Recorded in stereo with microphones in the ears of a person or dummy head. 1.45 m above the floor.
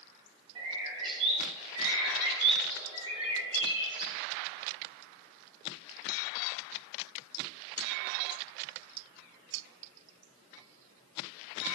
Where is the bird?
30° right (ahead or behind), 2 m.